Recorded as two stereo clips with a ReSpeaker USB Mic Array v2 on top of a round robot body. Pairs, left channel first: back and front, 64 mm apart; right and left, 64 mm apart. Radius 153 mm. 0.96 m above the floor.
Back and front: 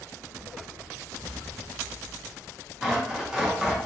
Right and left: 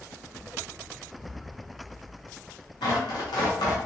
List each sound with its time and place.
1.1 s an explosion: 65° right, 1.8 m
2.8 s tearing paper: 80° right, 0.9 m